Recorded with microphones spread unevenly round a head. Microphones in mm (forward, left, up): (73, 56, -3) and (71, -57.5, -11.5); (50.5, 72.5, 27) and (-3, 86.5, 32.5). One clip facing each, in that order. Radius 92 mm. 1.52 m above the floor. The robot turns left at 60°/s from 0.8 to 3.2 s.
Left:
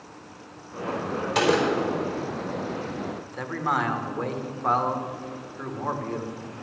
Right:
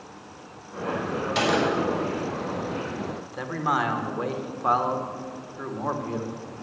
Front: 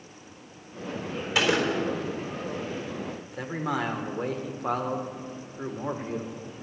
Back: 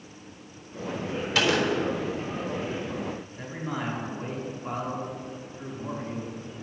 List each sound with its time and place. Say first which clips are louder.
1.4 s a gunshot: left 2 dB, even; 55° left, 4 m; by 1.9 s 25° left, 4 m
3.2 s a man speaking: right 1 dB, front 4 dB; 10° right, 1.4 m